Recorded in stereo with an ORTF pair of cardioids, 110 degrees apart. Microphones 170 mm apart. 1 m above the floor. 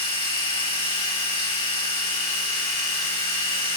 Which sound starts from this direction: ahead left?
A machine running, at 0.0 s.